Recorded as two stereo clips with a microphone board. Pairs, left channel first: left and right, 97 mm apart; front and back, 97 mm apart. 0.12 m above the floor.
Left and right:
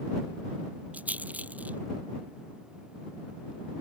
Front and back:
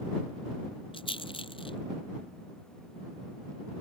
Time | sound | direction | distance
0.9 | a rattle | 15° right | ?